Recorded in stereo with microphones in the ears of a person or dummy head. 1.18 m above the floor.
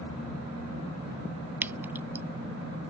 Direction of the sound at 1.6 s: 10° right (ahead or behind).